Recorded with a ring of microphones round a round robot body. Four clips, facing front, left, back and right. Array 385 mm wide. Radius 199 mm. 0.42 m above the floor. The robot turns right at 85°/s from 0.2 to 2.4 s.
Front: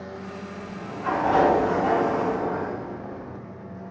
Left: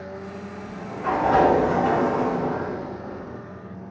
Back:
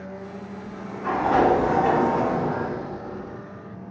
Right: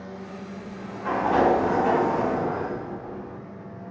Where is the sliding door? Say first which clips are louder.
Left 4 dB, even; 45° left, 2.5 m; by 3.4 s 160° right, 2.5 m.